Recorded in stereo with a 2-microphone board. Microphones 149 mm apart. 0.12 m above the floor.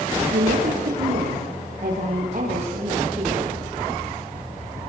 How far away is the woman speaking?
About 5 m.